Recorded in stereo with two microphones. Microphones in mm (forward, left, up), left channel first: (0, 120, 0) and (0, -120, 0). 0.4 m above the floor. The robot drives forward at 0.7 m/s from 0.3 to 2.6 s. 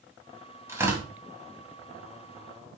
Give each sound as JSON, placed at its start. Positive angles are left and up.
{"t": 0.7, "sound": "tearing paper", "side_deg": -10, "distance_m": 2.0}